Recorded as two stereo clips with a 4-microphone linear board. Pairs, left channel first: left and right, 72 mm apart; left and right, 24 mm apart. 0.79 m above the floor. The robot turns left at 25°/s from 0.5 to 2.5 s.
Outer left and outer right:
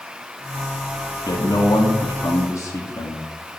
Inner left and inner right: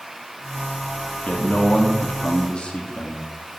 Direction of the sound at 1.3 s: 85° left.